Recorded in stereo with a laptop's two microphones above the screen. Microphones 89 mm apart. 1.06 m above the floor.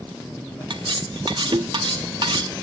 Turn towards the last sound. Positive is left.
turn(degrees=-65)  # may be behind; listen again after turning